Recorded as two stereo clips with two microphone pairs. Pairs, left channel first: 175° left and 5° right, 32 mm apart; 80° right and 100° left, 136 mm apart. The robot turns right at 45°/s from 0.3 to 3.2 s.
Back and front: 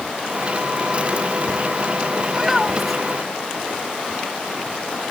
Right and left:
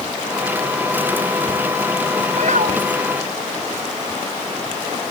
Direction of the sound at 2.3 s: 65° left.